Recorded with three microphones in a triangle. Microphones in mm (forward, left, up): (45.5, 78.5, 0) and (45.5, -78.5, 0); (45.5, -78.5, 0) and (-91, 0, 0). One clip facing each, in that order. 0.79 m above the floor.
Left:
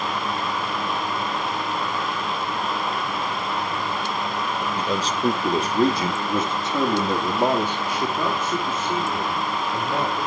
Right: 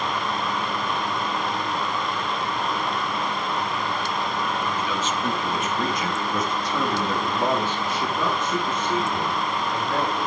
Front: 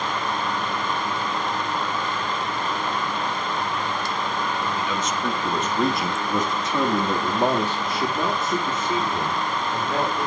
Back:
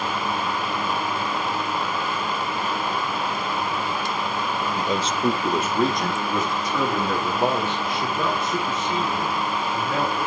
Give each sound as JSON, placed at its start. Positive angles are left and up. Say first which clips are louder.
{"t": 4.8, "sound": "a man speaking", "louder": "left 2 dB, back 2 dB", "azimuth_deg": 125, "distance_m": 1.4}